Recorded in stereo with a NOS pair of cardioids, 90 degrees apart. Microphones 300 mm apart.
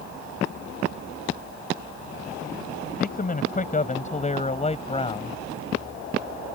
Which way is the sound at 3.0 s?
30° left.